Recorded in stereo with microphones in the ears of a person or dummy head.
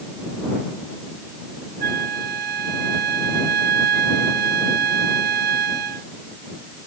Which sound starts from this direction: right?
A flute, at 1.8 s.